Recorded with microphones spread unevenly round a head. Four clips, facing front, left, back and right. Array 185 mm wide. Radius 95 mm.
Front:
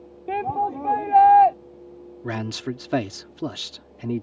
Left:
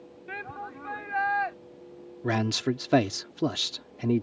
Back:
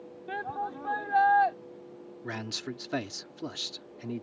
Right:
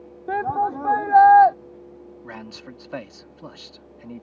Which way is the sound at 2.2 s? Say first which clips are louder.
Left 13 dB, front 9 dB; 70° left.